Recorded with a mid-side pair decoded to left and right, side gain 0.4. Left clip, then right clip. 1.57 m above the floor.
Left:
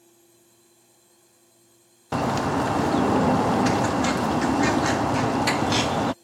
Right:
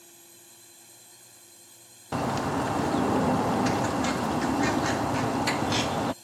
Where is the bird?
30° left.